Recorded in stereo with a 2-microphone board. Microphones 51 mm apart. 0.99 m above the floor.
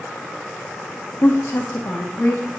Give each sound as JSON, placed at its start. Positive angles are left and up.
{"t": 1.2, "sound": "a woman speaking", "side_deg": 50, "distance_m": 0.6}